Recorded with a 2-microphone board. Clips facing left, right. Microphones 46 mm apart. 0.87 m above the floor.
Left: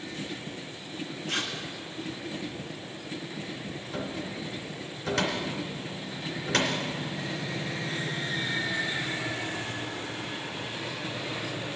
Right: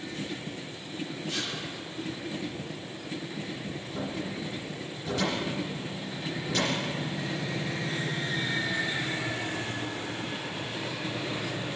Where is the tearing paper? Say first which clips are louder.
Left 4 dB; 70° left (ahead or behind), 3 m.